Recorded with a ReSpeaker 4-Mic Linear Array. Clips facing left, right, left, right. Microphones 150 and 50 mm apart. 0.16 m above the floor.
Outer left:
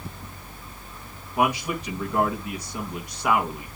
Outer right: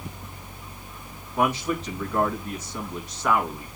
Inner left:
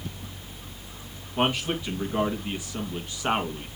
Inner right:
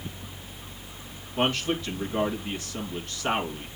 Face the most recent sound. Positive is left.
turn(degrees=10)  # may be behind; listen again after turning